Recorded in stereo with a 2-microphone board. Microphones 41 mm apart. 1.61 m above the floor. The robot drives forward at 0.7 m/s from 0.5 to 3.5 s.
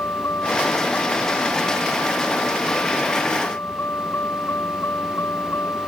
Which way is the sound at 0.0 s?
85° left.